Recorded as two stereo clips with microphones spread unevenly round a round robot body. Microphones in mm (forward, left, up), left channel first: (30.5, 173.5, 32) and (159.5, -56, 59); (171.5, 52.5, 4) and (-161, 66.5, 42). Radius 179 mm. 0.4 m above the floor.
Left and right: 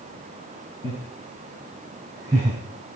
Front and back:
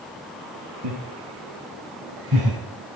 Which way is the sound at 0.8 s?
160° right.